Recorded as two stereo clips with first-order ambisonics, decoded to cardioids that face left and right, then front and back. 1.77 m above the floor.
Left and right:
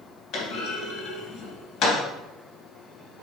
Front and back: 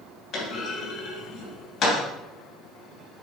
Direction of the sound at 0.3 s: 50° left.